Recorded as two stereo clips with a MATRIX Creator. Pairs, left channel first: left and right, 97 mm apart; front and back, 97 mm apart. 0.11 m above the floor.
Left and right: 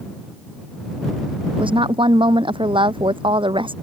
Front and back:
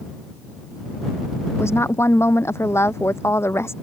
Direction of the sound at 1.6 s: 65° right.